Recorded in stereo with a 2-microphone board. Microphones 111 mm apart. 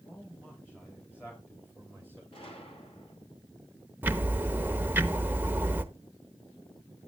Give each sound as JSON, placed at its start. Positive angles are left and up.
{"t": 0.1, "sound": "a man speaking", "side_deg": 20, "distance_m": 3.5}
{"t": 2.3, "sound": "a gunshot", "side_deg": 55, "distance_m": 2.5}
{"t": 4.0, "sound": "ticking", "side_deg": -15, "distance_m": 0.9}